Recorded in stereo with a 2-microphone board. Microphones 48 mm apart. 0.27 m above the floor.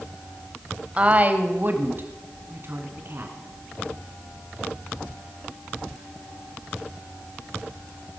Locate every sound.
1.0 s a woman speaking: 25° right (ahead or behind), 0.9 m; by 3.3 s 55° right (ahead or behind), 2.5 m